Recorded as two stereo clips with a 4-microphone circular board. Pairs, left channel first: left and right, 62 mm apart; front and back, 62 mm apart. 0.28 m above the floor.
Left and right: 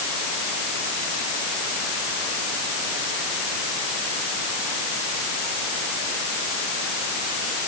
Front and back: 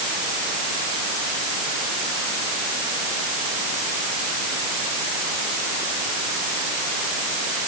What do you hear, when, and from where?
Only background noise.